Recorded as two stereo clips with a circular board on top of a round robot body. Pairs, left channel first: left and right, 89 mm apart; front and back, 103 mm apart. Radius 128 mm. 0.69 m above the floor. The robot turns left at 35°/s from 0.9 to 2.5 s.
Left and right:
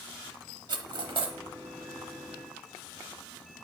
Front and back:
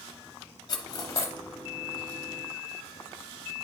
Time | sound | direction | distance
0.7 | cutlery clinking | 50° right | 0.8 m